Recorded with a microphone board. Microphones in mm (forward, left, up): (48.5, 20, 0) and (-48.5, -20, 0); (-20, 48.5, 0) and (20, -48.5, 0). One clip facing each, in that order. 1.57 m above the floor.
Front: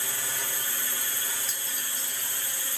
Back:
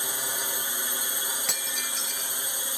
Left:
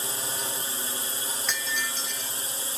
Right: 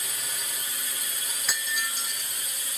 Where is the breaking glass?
150° right.